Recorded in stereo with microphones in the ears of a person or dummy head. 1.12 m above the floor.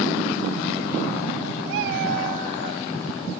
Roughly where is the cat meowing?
Right.